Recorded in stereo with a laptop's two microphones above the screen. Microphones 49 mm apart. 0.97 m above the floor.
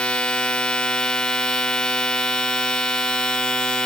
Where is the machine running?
15° left (ahead or behind), 1.6 m.